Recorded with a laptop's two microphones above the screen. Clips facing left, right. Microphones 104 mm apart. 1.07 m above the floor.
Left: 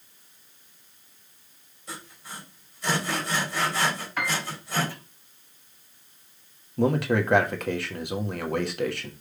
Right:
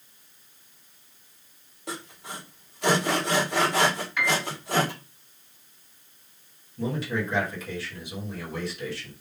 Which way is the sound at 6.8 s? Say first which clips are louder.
Left 6 dB; 65° left (ahead or behind).